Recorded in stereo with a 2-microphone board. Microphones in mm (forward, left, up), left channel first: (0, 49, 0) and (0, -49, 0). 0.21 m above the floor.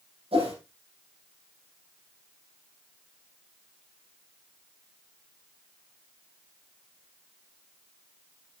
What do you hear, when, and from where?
0.3 s a whoosh: 75° right (ahead or behind), 8 m